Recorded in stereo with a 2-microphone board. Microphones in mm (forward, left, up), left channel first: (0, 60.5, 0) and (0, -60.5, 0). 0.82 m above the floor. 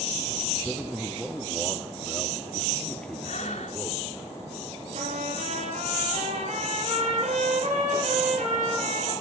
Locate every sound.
0.7 s a man speaking: 10° right (ahead or behind), 1.1 m; by 4.2 s 10° left (ahead or behind), 3 m
3.2 s breathing: 80° left, 2.5 m
4.9 s a trumpet: 80° right, 6.5 m